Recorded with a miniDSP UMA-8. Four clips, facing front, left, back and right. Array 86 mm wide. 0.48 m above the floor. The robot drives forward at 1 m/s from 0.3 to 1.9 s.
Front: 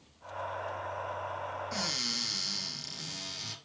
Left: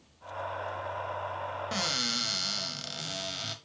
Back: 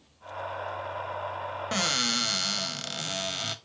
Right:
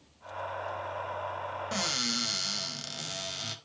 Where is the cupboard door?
175° left, 0.8 m.